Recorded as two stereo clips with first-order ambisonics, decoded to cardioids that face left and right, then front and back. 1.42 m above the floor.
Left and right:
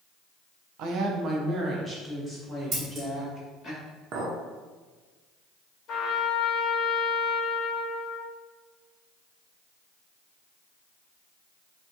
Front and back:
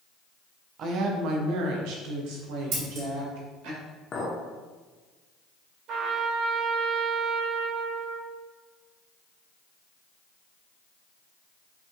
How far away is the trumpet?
About 0.7 m.